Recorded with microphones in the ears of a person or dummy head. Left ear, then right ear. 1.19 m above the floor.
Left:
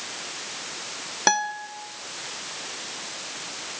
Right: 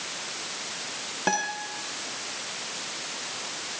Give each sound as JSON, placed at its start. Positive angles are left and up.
{"t": 1.3, "sound": "a guitar", "side_deg": 60, "distance_m": 1.4}